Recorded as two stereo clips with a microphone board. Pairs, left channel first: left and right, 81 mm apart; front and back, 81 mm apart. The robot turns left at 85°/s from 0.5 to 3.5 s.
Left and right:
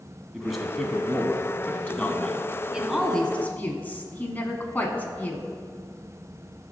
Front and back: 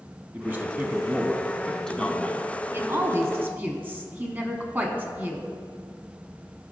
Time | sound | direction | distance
0.3 | a man speaking | 175° right | 1.1 m
2.7 | a woman speaking | 155° right | 1.1 m